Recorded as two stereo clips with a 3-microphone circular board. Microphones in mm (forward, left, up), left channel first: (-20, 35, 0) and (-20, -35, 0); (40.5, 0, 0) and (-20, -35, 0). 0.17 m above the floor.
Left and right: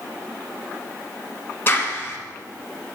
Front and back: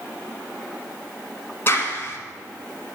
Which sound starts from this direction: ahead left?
A clap, at 1.7 s.